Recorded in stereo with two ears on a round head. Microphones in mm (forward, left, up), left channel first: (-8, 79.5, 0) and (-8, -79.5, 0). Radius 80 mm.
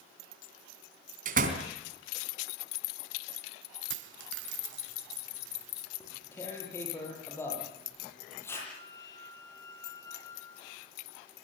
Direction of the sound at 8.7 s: 15° left (ahead or behind).